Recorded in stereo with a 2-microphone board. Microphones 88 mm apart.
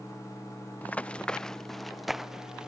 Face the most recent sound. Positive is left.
turn(degrees=-10)  # may be behind; listen again after turning